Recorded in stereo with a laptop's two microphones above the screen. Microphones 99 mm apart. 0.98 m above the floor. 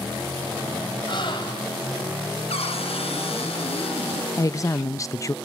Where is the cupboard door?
80° left, 5 m.